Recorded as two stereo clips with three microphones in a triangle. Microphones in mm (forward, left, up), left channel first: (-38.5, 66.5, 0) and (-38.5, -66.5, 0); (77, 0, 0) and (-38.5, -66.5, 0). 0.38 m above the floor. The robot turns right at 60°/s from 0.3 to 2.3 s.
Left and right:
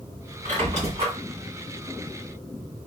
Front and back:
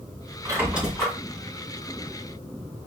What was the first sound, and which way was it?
A squeak, 90° right.